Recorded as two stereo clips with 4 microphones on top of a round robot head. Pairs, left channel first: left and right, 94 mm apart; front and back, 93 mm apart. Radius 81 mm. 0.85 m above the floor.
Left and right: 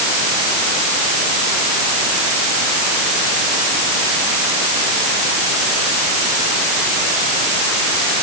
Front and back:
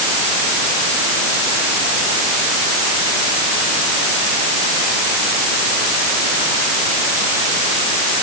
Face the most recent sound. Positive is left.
No sound to turn to.